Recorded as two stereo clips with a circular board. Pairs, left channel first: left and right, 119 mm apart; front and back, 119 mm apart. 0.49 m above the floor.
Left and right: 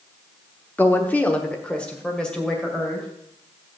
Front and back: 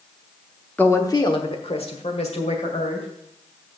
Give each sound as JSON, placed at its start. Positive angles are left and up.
{"t": 0.8, "sound": "a woman speaking", "azimuth_deg": 50, "distance_m": 0.8}